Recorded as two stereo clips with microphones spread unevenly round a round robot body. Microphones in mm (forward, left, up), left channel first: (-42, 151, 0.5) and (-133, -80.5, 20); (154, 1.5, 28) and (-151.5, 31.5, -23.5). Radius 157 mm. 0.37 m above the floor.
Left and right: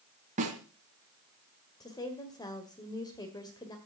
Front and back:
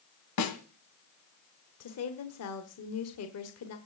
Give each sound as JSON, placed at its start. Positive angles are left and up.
{"t": 0.4, "sound": "a snare drum", "azimuth_deg": -45, "distance_m": 2.5}
{"t": 1.8, "sound": "a woman speaking", "azimuth_deg": 5, "distance_m": 1.7}